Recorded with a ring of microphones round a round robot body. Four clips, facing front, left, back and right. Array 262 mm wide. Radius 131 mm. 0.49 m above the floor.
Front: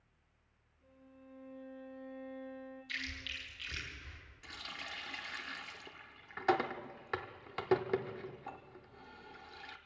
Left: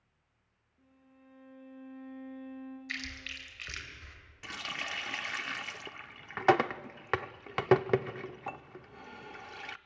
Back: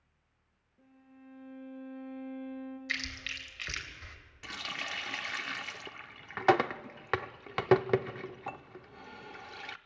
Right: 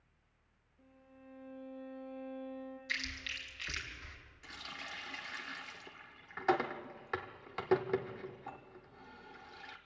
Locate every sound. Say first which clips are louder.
0.8 s a violin: right 2 dB, back 3 dB; 160° left, 7 m
2.9 s chewing: left 1 dB, back 5 dB; 175° left, 3 m
4.4 s a running tap: left 8 dB, back 7 dB; 130° left, 0.5 m